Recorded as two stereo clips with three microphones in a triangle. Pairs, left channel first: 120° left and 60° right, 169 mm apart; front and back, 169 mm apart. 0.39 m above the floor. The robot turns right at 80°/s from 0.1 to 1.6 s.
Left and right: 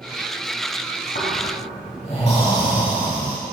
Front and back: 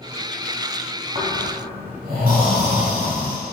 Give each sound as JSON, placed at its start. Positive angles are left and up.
{"t": 1.1, "sound": "snoring", "azimuth_deg": 130, "distance_m": 2.5}